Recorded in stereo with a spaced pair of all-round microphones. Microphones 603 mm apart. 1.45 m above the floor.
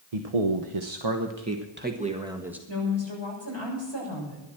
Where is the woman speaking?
45° right (ahead or behind), 6.5 m.